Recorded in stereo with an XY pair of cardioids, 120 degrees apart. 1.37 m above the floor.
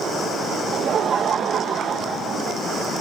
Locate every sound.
0.7 s laughter: 45° right, 1.3 m